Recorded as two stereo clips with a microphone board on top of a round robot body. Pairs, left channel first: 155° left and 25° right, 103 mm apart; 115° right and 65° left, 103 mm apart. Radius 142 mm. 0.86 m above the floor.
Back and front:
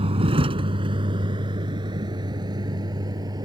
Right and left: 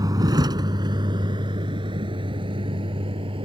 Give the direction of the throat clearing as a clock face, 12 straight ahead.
I don't hear throat clearing.